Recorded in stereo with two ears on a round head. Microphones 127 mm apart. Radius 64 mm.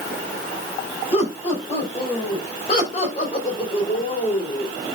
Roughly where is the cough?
I don't hear a cough.